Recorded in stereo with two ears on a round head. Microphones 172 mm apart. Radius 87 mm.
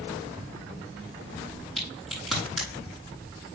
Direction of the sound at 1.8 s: Centre (ahead or behind).